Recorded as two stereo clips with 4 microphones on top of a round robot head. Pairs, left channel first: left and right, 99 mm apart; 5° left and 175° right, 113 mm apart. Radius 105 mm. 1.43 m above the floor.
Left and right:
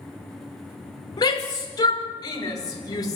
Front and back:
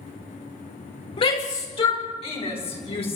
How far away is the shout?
About 6.5 m.